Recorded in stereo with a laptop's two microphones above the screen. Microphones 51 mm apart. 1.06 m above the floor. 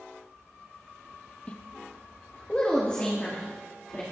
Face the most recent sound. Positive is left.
turn(degrees=25)  # may be behind; listen again after turning